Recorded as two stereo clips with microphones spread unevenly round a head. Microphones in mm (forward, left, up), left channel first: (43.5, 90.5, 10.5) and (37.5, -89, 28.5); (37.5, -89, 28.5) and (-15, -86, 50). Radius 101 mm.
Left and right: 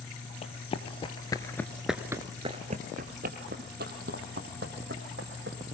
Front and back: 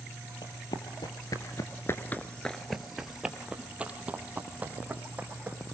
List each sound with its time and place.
0.4 s running footsteps: 35° left, 1.9 m; by 5.6 s 130° right, 4 m